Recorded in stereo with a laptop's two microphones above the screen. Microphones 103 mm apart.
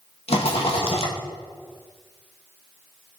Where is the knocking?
No knocking in this recording.